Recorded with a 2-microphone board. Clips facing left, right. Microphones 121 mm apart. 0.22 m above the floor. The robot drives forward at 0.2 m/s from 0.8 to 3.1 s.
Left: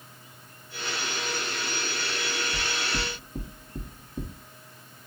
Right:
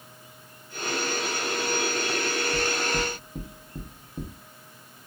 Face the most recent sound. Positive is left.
turn(degrees=0)  # may be behind; listen again after turning